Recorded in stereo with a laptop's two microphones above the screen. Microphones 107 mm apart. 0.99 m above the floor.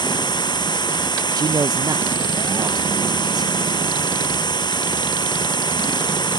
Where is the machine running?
45° left (ahead or behind).